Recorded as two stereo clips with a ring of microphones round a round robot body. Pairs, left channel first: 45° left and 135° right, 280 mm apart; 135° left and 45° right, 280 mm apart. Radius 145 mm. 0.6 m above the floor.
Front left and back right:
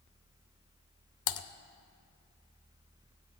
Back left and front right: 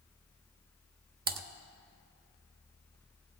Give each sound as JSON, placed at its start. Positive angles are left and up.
{"t": 1.3, "sound": "typing on a keyboard", "azimuth_deg": 15, "distance_m": 0.7}